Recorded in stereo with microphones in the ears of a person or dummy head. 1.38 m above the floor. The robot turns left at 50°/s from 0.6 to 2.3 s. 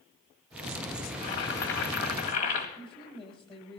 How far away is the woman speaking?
About 2 m.